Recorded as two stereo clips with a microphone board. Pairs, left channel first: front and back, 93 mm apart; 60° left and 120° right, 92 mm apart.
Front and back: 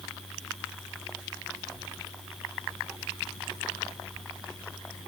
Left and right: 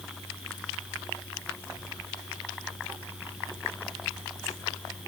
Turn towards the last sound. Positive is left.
No sound to turn to.